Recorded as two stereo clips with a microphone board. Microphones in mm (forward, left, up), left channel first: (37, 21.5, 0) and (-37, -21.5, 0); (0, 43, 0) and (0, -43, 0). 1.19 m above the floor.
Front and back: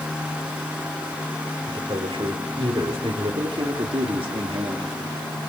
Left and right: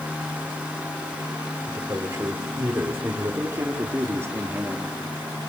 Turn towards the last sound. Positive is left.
turn(degrees=-155)